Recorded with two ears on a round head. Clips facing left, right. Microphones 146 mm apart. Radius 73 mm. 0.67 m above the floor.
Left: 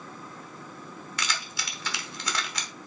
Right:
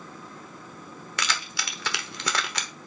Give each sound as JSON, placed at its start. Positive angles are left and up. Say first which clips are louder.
{"t": 1.2, "sound": "keys jangling", "louder": "right 4 dB", "side_deg": -55, "distance_m": 1.1}